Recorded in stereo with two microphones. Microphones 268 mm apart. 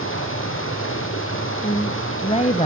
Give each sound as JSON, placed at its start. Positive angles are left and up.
{"t": 0.0, "sound": "running water", "side_deg": 50, "distance_m": 4.5}
{"t": 1.6, "sound": "a woman speaking", "side_deg": 25, "distance_m": 1.0}